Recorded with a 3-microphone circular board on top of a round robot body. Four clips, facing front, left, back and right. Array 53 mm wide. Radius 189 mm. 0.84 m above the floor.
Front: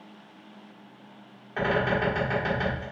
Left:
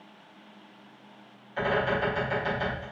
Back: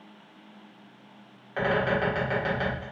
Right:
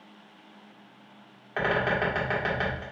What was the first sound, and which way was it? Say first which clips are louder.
A bird: right 1 dB, even; 105° right.